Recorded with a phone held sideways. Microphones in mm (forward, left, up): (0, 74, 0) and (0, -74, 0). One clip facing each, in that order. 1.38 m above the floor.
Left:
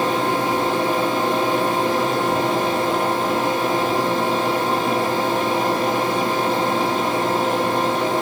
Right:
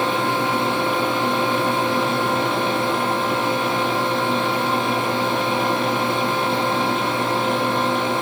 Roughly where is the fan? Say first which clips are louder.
Left 1 dB; left.